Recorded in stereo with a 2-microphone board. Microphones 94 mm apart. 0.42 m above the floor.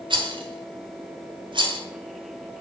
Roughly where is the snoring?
No snoring in this recording.